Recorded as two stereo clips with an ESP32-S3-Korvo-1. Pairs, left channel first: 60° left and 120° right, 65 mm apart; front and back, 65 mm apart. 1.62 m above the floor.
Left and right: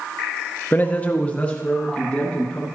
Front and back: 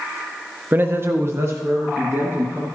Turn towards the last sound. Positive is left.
turn(degrees=135)